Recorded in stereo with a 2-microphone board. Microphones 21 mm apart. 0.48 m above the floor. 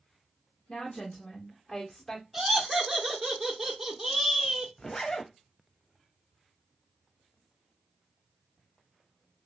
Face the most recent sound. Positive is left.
turn(degrees=35)  # may be behind; listen again after turning